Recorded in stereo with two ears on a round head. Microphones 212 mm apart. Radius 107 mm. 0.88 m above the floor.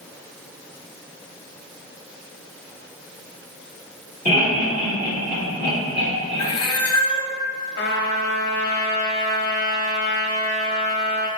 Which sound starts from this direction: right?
Laughter, at 4.2 s.